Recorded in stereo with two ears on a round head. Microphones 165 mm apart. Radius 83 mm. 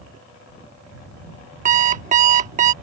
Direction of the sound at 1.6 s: 40° right (ahead or behind).